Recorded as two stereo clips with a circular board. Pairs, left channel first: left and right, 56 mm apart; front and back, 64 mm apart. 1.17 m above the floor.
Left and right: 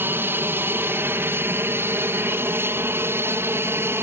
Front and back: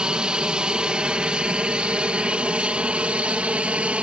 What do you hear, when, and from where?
0.0 s an aircraft: 110° right; by 4.0 s 115° right